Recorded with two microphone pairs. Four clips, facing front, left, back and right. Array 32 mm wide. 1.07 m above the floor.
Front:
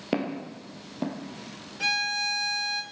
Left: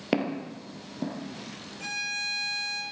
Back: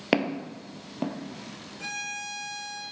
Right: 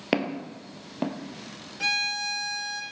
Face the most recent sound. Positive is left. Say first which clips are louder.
# right 5 dB, front 8 dB
turn(degrees=-40)